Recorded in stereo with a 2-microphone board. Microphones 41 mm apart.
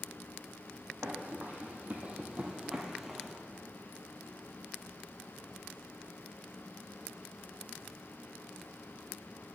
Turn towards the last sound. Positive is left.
turn(degrees=0)  # may be behind; listen again after turning